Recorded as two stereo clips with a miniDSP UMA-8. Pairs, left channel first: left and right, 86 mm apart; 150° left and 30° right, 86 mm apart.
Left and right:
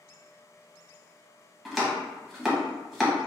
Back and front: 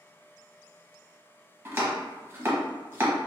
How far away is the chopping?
About 0.9 m.